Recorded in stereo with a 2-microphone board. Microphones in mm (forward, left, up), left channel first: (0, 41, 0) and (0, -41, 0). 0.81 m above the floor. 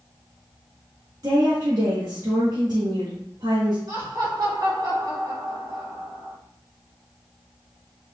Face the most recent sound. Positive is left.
turn(degrees=-70)  # may be behind; listen again after turning